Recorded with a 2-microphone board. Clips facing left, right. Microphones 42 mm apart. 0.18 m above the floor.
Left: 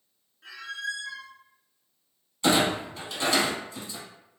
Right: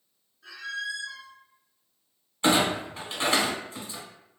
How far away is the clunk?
About 1.1 m.